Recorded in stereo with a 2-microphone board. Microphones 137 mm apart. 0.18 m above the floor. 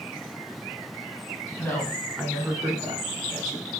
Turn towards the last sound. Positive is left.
turn(degrees=-55)  # may be behind; listen again after turning